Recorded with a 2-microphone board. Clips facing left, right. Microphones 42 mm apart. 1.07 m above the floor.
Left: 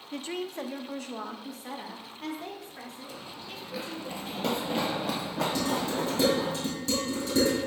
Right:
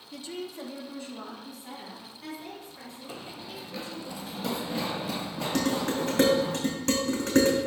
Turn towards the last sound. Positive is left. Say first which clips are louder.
# right 6 dB
turn(degrees=-65)  # may be behind; listen again after turning